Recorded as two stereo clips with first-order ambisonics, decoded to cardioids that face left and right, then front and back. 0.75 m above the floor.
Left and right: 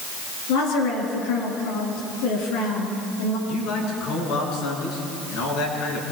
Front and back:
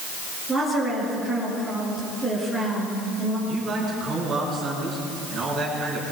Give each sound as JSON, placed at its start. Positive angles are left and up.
{"t": 0.5, "sound": "a woman speaking", "azimuth_deg": 90, "distance_m": 8.5}
{"t": 3.5, "sound": "a man speaking", "azimuth_deg": 115, "distance_m": 8.0}